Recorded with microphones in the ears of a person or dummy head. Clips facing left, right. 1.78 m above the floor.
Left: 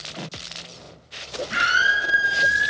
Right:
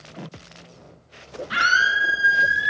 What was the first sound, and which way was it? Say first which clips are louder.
A scream: even; 60° right (ahead or behind).